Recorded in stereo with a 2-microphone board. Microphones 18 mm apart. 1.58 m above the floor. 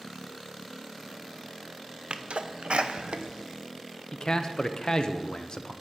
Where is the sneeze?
75° right (ahead or behind), 1.1 m.